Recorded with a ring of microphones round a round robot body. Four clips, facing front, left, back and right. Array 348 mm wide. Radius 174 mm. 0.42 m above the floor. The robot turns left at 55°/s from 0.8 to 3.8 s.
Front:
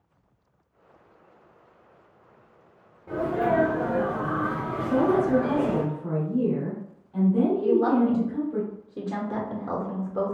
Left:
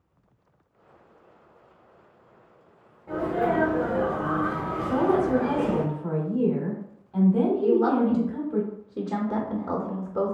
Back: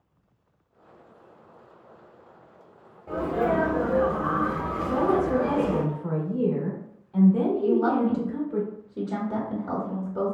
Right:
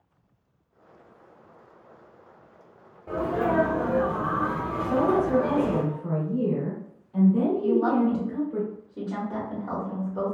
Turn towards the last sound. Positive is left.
turn(degrees=70)